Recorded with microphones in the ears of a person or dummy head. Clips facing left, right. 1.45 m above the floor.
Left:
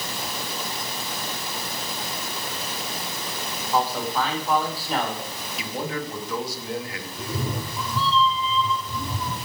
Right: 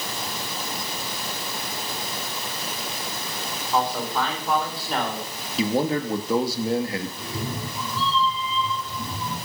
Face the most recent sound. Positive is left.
turn(degrees=85)